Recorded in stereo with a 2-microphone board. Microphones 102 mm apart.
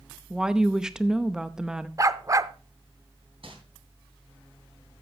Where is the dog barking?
35° right (ahead or behind), 0.5 m.